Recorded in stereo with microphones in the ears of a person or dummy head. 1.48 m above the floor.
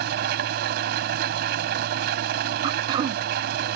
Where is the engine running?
60° right (ahead or behind).